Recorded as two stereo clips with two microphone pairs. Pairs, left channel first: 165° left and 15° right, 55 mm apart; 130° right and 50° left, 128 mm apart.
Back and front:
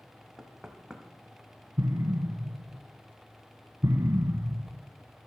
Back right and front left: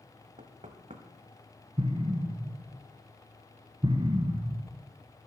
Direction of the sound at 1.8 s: 5° left.